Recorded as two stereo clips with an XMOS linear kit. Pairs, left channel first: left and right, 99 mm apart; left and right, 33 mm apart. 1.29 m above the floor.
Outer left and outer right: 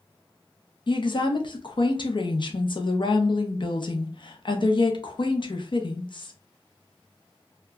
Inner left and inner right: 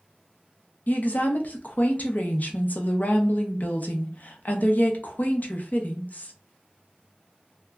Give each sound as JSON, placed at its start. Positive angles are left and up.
{"t": 0.9, "sound": "a woman speaking", "side_deg": 50, "distance_m": 0.6}